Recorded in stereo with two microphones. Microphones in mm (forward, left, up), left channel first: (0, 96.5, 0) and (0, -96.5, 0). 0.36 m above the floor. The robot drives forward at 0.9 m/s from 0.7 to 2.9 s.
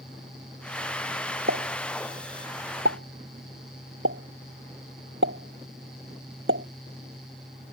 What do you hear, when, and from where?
1.5 s a pop: 70° right (ahead or behind); by 6.7 s 85° right